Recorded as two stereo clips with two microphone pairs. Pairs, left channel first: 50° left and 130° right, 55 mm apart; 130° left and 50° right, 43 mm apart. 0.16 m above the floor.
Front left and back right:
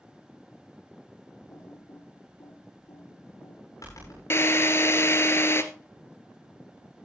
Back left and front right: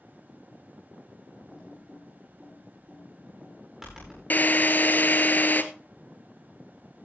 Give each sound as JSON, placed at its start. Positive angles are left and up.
{"t": 1.5, "sound": "typing on a keyboard", "azimuth_deg": 30, "distance_m": 8.5}
{"t": 4.3, "sound": "a drill", "azimuth_deg": 90, "distance_m": 1.0}